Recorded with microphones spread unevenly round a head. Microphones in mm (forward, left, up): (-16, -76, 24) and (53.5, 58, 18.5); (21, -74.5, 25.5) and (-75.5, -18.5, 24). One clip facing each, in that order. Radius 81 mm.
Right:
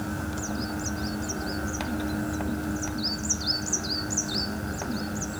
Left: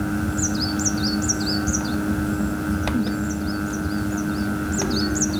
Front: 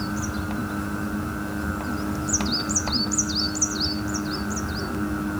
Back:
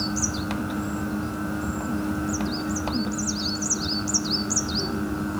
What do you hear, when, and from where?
Only background noise.